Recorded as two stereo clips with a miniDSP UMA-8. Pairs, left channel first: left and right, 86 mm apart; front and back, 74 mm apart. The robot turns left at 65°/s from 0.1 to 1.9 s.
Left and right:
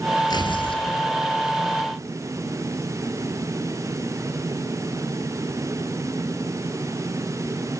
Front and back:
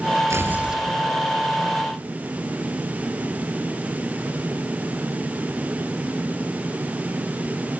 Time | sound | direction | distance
0.3 | tearing paper | 130° left | 3 m